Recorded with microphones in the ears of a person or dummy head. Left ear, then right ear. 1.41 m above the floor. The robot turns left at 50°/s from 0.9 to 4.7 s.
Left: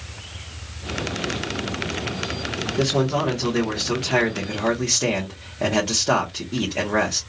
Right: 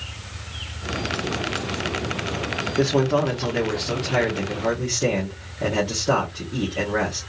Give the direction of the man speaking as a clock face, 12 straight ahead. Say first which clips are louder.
Right 1 dB; 4 o'clock.